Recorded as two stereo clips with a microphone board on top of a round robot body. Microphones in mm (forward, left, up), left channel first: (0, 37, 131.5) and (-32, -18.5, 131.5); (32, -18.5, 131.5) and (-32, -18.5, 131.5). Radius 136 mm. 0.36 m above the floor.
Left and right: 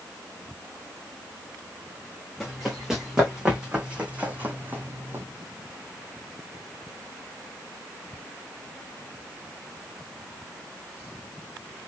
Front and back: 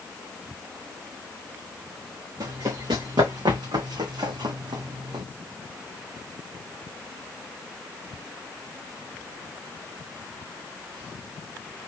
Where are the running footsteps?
155° left, 2.5 m; by 5.2 s 170° right, 1.6 m.